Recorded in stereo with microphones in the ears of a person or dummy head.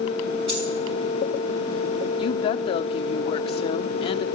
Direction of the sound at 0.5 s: 35° right (ahead or behind).